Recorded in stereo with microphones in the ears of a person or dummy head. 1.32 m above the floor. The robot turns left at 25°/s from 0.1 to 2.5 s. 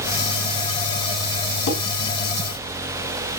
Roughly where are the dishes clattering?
Left.